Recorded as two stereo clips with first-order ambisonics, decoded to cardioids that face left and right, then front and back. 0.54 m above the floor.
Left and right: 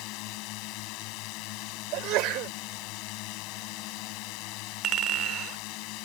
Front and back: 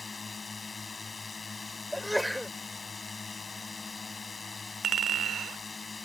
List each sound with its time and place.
0.0 s a drone: 75° left
1.9 s a sneeze: 90° right
4.8 s a clink: 130° right